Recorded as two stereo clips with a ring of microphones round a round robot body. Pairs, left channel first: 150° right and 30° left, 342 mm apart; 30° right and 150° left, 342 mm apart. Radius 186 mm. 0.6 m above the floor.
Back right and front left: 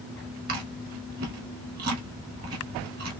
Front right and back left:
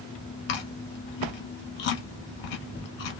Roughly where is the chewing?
Ahead right.